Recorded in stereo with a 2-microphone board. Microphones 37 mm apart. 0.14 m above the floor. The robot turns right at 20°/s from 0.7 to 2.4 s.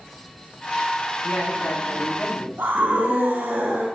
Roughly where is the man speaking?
Left.